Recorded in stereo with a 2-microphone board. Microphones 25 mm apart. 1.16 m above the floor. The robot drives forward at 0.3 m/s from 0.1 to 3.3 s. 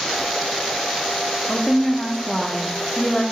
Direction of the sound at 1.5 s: 25° left (ahead or behind).